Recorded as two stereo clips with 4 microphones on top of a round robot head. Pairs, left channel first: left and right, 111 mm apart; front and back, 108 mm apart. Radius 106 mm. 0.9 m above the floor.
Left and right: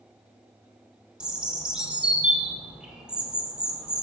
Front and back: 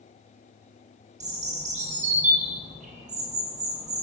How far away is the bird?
About 1.7 m.